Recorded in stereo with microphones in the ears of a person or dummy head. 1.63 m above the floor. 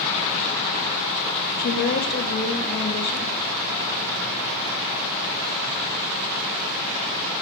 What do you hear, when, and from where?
1.6 s a woman speaking: 55° left (ahead or behind), 0.5 m